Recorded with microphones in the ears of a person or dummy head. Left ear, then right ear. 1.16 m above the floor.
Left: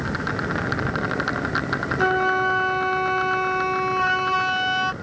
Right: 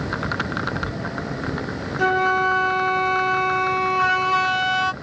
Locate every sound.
2.0 s a flute: 10° right (ahead or behind)